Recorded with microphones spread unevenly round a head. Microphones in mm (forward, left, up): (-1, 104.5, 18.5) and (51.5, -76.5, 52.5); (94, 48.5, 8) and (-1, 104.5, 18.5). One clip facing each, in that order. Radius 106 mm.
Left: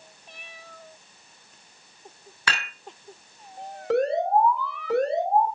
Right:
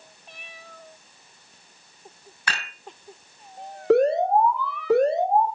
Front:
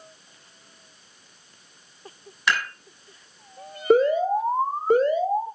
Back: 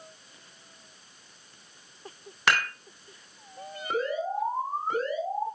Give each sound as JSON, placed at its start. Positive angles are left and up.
{"t": 2.5, "sound": "dishes clattering", "azimuth_deg": 140, "distance_m": 3.0}
{"t": 3.9, "sound": "an alarm", "azimuth_deg": -70, "distance_m": 1.7}